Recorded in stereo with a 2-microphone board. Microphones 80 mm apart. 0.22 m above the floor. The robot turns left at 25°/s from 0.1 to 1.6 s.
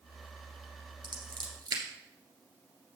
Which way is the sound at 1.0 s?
65° right (ahead or behind).